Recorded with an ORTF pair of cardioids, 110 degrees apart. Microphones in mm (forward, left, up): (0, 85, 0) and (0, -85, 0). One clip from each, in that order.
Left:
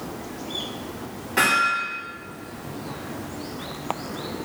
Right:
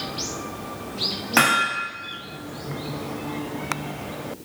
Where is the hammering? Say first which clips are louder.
Even; 65° right, 1.5 m.